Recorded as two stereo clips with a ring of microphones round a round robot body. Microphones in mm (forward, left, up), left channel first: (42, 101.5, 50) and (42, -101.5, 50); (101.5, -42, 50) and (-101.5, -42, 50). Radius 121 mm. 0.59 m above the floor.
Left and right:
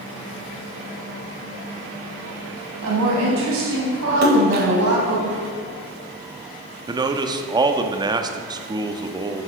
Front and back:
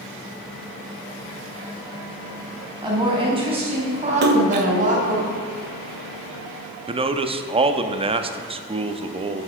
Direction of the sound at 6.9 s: 145° right.